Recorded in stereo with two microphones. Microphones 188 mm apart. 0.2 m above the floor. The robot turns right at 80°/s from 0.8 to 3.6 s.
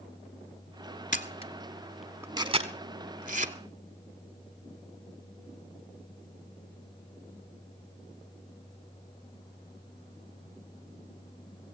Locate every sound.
1.1 s a camera shutter: 45° left (ahead or behind), 1.1 m; by 3.5 s 40° right (ahead or behind), 1.1 m